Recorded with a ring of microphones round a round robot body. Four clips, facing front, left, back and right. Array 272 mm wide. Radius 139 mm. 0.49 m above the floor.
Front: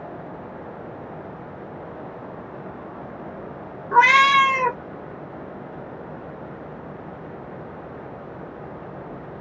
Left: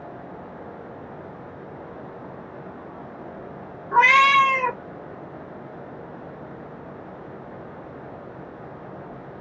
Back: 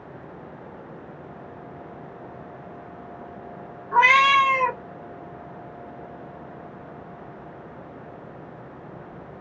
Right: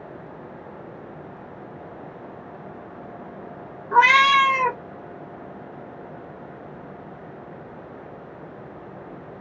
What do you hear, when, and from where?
3.9 s a cat meowing: 25° right, 0.8 m